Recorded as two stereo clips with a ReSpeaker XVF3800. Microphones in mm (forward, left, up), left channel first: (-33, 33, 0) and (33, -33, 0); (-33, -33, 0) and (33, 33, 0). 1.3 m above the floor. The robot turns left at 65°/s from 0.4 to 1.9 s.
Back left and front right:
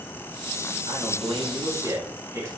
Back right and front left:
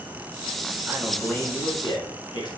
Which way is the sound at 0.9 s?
30° right.